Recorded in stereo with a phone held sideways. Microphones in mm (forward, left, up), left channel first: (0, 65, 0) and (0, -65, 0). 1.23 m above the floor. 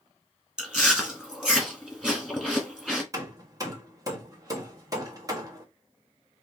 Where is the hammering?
25° right (ahead or behind), 1.2 m.